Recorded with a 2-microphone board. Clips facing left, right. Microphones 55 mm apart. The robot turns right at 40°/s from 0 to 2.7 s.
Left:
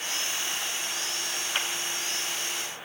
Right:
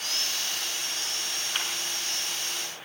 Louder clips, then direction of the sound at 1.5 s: Left 2 dB; 10° left (ahead or behind).